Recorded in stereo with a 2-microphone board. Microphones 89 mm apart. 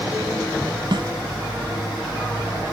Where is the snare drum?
60° right (ahead or behind).